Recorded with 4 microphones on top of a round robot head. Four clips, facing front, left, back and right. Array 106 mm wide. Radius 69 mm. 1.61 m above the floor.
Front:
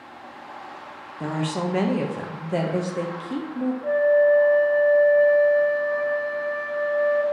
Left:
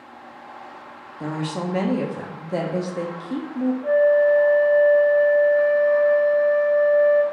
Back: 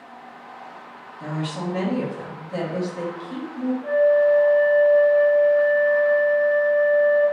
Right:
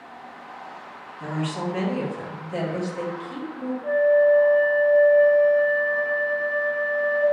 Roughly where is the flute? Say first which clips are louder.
Left 1 dB, back 1 dB; ahead left.